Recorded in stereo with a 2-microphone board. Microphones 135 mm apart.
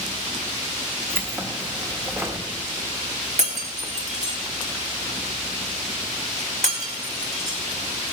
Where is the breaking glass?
55° right (ahead or behind), 2.5 m.